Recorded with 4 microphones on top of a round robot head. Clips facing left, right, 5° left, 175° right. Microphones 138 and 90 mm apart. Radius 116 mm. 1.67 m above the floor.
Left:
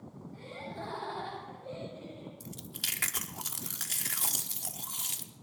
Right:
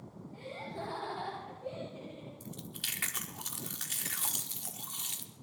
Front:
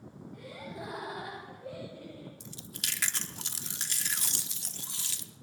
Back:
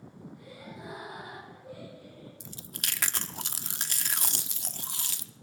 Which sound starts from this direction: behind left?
Chewing, at 2.4 s.